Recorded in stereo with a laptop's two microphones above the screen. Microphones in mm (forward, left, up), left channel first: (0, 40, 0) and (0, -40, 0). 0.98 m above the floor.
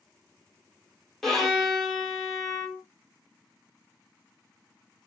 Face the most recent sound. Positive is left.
turn(degrees=0)  # may be behind; listen again after turning